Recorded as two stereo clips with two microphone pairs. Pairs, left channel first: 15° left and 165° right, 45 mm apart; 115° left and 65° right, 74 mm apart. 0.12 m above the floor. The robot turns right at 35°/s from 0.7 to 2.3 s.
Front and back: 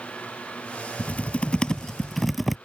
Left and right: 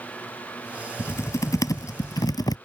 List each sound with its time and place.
1.0 s typing on a keyboard: 65° left; by 2.6 s 110° left